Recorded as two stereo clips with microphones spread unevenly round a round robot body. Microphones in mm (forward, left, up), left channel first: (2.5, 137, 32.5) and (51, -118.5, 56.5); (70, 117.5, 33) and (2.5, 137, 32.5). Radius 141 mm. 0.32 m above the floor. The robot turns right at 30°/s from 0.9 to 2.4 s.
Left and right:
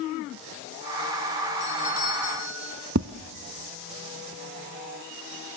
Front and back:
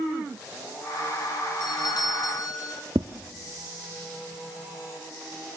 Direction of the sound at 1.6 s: 15° right.